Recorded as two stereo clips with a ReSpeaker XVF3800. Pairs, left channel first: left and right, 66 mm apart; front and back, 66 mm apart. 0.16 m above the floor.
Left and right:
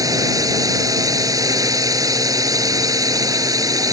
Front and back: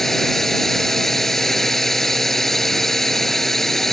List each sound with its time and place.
0.0 s a drone: 85° right